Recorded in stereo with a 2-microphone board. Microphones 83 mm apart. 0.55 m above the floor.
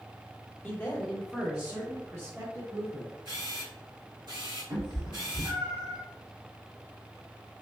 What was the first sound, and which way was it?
A man speaking, 30° left (ahead or behind).